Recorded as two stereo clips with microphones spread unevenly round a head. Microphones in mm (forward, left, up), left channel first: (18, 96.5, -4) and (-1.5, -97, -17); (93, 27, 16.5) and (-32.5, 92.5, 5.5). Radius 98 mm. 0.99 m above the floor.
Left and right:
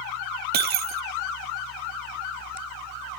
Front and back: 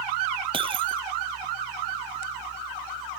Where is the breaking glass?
140° right.